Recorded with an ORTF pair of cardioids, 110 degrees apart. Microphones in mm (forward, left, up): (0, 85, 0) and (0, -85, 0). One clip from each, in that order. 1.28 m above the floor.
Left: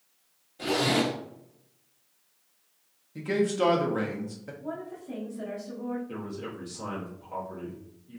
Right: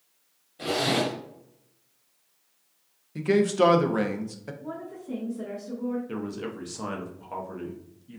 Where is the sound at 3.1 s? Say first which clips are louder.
Right 5 dB; 25° right, 0.5 m.